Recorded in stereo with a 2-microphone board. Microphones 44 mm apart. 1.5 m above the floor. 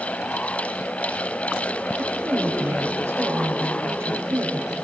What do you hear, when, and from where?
2.0 s a woman speaking: 75° right (ahead or behind), 6.5 m